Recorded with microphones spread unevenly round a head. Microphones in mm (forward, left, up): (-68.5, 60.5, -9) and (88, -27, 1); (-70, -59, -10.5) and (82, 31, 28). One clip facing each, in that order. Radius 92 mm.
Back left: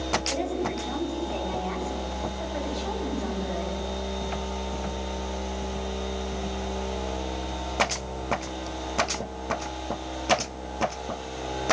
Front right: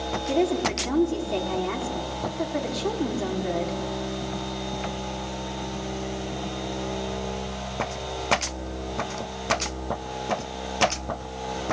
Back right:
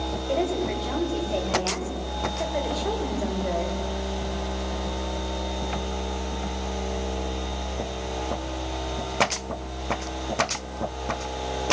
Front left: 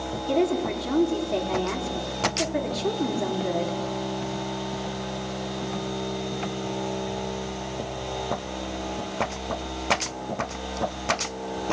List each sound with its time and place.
0.3 s a woman speaking: 5° right, 4.5 m